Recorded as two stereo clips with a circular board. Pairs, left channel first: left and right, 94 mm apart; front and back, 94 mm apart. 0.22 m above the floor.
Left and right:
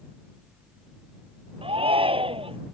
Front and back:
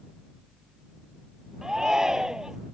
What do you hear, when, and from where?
1.6 s a shout: 95° right